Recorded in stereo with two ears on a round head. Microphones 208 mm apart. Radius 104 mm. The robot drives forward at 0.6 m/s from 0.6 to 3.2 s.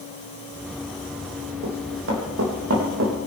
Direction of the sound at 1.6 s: 65° right (ahead or behind).